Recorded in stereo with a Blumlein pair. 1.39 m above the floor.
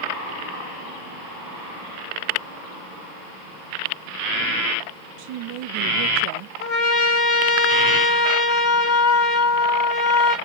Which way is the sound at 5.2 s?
45° right.